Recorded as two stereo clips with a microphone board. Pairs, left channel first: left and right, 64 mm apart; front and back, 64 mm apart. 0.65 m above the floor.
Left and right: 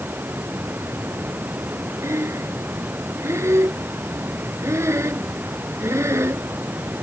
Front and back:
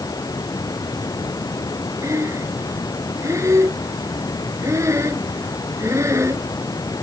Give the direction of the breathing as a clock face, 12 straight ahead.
5 o'clock.